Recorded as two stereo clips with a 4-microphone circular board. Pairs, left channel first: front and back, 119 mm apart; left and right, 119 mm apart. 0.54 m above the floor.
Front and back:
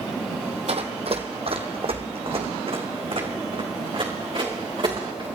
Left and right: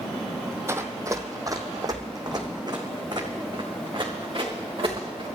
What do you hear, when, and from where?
0.7 s running footsteps: 155° right, 1.2 m; by 5.2 s 135° right, 3.5 m